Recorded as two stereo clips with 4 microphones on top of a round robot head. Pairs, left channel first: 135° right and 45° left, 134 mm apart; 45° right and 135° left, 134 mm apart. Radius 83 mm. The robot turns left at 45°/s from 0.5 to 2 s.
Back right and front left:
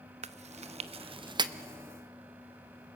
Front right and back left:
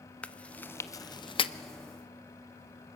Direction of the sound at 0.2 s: 35° left.